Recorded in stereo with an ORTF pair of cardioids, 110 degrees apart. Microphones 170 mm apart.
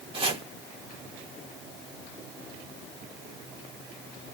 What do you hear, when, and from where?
0.1 s chopping: 30° right, 1.9 m